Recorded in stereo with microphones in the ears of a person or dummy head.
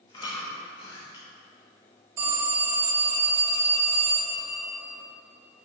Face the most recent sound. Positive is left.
turn(degrees=-20)  # may be behind; listen again after turning